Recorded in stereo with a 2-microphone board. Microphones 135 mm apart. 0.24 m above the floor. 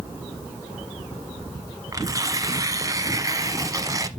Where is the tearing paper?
30° right (ahead or behind), 0.9 m.